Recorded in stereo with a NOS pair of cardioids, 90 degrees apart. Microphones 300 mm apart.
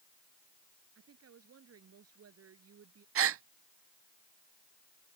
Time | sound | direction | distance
0.9 | a woman speaking | 50° right | ?
3.1 | a gasp | 50° right | ?